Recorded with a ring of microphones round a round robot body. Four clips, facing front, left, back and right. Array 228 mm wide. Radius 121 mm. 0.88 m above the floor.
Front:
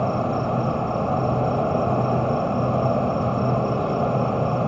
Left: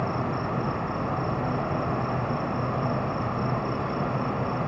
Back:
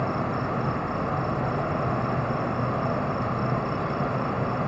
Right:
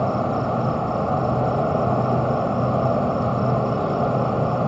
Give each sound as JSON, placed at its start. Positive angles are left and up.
{"t": 0.0, "sound": "an insect", "azimuth_deg": -50}